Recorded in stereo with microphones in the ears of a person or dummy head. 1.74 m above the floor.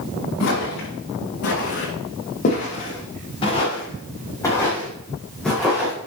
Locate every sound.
0.4 s footsteps: 65° left (ahead or behind), 7 m; by 6.0 s 5° right (ahead or behind), 6.5 m